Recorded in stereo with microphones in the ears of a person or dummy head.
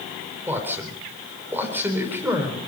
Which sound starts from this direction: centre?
A man speaking, at 0.5 s.